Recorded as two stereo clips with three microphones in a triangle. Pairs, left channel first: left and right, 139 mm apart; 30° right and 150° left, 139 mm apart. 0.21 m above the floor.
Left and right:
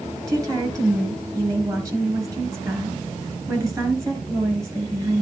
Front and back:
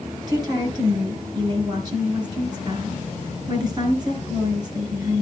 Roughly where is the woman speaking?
Behind right.